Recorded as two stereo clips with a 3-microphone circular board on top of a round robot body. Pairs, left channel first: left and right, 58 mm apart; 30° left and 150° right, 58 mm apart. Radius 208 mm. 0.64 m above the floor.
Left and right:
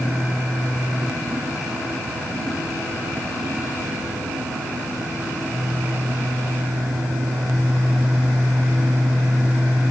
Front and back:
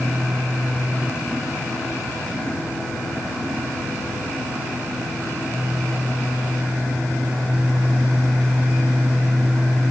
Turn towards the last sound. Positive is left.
No sound to turn to.